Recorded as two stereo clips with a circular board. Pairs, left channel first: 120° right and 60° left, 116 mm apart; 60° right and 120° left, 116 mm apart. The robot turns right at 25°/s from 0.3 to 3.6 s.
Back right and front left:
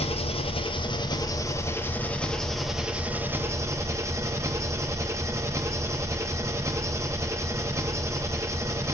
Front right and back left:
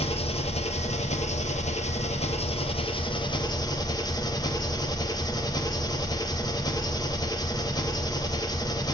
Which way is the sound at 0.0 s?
85° right.